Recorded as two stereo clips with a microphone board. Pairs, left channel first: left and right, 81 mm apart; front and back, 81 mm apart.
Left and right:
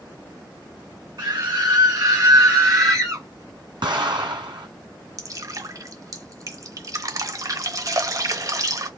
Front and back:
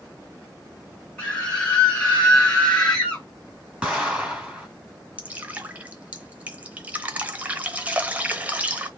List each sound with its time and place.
1.2 s a scream: 75° right, 2 m; by 3.2 s 70° right, 1.2 m
3.8 s an explosion: 100° right, 2.5 m
5.2 s dripping: 115° right, 0.8 m